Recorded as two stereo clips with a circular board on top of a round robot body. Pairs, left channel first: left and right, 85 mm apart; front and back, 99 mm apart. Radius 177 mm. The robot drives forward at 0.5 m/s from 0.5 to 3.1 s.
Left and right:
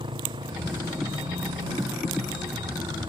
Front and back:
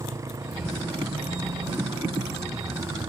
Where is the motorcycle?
120° right; by 3.1 s 125° right.